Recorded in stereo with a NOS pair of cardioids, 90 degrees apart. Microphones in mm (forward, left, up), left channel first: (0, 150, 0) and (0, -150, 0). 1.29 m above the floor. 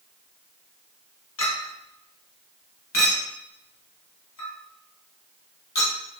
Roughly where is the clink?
Ahead left.